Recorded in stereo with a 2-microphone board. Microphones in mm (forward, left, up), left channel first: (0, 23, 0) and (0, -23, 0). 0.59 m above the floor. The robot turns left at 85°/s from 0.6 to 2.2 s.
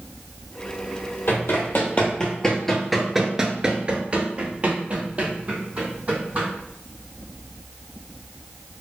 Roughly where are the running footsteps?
Left.